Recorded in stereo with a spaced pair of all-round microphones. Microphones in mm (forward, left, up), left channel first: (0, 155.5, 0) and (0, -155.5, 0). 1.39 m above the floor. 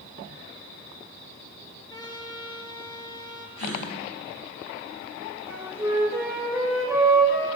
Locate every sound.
1.9 s a trumpet: 15° left (ahead or behind), 4 m
3.6 s a gasp: 80° left, 9.5 m
5.5 s a flute: 10° right (ahead or behind), 6 m